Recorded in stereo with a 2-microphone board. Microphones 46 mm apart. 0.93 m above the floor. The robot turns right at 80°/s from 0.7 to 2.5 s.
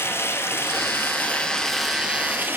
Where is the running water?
90° left, 1.8 m; by 2.6 s 125° right, 1.8 m.